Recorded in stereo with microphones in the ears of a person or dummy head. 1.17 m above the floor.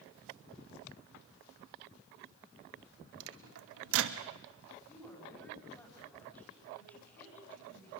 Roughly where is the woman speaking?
Centre.